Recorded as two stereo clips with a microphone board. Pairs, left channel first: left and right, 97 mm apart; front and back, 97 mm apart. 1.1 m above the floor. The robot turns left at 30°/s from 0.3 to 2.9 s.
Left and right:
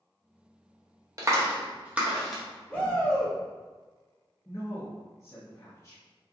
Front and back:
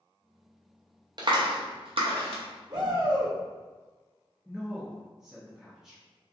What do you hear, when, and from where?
1.2 s a clap: 145° right, 0.6 m; by 2.4 s straight behind, 0.6 m
2.7 s a shout: 155° left, 0.9 m; by 3.4 s 150° left, 0.9 m
4.5 s a woman speaking: 100° left, 0.7 m